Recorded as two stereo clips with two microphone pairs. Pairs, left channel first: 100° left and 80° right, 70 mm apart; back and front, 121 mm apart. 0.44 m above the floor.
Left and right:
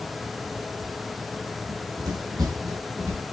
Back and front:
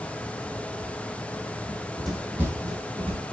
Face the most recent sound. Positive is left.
turn(degrees=-25)